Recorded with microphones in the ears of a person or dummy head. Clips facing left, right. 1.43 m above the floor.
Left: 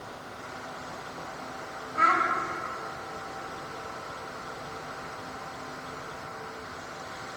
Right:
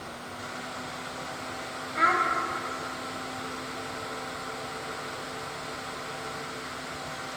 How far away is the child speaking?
About 0.7 m.